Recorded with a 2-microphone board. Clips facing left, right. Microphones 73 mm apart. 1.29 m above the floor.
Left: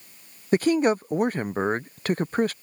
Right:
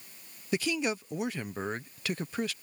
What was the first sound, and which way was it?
A man speaking, 45° left (ahead or behind).